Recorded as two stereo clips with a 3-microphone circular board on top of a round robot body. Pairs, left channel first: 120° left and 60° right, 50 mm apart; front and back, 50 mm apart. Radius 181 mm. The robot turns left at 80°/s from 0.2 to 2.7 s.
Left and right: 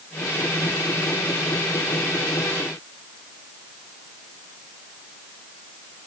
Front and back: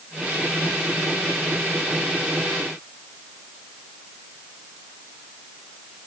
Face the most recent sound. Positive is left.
No sound to turn to.